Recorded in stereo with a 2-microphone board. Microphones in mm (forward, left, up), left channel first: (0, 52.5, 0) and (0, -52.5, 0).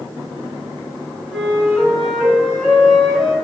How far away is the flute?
About 3.5 m.